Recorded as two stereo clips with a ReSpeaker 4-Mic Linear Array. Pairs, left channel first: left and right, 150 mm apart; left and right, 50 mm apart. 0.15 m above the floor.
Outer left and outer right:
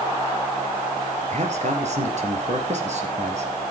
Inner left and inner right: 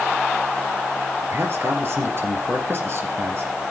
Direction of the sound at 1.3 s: 50° right (ahead or behind).